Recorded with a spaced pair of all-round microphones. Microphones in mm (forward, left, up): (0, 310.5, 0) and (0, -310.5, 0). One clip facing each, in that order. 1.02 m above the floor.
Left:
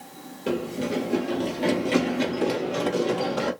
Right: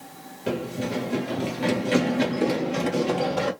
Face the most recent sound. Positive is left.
turn(degrees=-50)  # may be behind; listen again after turning